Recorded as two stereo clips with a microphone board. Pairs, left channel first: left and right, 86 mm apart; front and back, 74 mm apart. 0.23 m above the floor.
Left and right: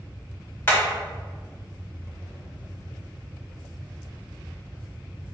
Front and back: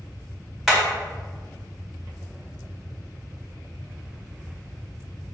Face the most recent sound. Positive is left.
turn(degrees=105)